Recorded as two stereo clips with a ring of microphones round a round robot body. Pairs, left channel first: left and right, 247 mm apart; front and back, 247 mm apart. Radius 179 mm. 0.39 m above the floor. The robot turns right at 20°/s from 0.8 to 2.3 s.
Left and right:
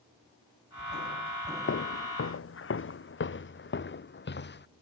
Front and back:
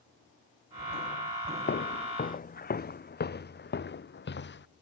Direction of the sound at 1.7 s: 50° left.